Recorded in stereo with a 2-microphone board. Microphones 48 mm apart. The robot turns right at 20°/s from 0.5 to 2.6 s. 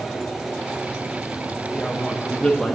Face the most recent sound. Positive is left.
turn(degrees=5)  # may be behind; listen again after turning